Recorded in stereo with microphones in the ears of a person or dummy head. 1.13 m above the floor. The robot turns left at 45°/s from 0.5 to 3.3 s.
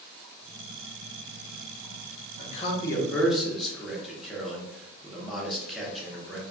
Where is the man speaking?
40° left, 0.7 m; by 6.4 s straight ahead, 0.7 m.